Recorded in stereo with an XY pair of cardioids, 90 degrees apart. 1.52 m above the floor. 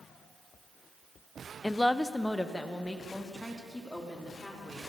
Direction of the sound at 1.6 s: 10° left.